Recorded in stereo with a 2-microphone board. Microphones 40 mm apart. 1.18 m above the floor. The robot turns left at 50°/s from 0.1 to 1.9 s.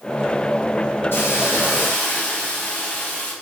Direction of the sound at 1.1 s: 85° left.